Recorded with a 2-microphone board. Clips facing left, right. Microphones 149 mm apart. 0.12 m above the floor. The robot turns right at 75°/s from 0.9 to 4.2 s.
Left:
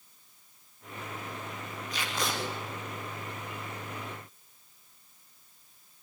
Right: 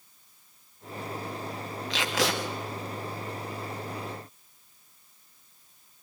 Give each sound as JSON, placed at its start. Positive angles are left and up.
{"t": 1.9, "sound": "tape being pulled", "azimuth_deg": -100, "distance_m": 4.0}